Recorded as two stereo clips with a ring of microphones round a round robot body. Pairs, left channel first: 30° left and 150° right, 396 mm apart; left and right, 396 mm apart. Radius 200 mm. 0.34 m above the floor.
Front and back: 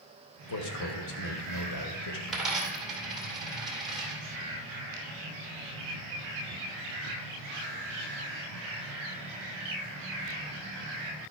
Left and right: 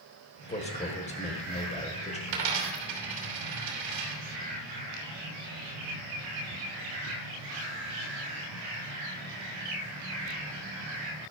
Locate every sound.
0.5 s a man speaking: 25° left, 1.5 m
2.3 s a dropped coin: 60° right, 2.5 m